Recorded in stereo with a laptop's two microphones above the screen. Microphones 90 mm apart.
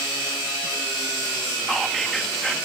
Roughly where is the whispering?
Centre.